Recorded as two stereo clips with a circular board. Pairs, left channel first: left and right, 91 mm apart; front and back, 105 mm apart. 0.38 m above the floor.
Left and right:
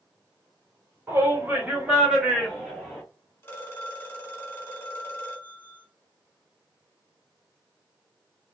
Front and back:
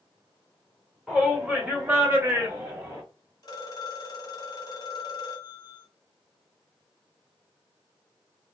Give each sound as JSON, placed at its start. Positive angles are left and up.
{"t": 1.1, "sound": "a shout", "azimuth_deg": -100, "distance_m": 1.6}
{"t": 3.4, "sound": "a phone ringing", "azimuth_deg": 35, "distance_m": 1.3}